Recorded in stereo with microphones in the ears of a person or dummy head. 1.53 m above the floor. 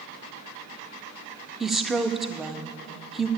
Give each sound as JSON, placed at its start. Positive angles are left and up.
{"t": 1.6, "sound": "a woman speaking", "side_deg": 0, "distance_m": 0.5}